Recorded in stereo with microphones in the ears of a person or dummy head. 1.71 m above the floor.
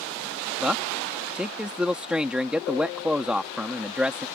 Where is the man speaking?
Centre (ahead or behind).